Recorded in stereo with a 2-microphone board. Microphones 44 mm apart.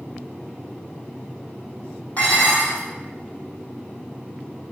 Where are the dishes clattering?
35° left (ahead or behind), 3 m.